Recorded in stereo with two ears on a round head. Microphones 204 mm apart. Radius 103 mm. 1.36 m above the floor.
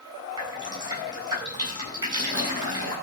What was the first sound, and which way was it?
Dripping, 20° right (ahead or behind).